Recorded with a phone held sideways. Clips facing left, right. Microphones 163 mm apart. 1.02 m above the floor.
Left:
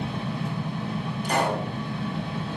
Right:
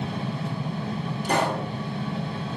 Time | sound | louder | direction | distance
0.0 | a fan | even | 35° right (ahead or behind) | 1.0 m
1.2 | a pop | right 1 dB | 60° right (ahead or behind) | 1.4 m